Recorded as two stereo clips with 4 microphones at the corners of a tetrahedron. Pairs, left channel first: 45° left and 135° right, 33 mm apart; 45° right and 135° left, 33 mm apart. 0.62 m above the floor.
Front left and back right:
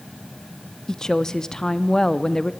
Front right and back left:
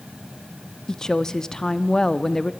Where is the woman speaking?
Straight ahead, 0.7 m.